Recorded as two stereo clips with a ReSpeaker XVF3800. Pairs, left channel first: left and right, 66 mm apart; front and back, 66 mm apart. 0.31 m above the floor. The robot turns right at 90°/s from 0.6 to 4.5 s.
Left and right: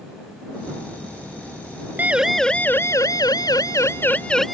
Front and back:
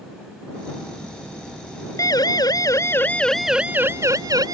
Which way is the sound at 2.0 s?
30° right.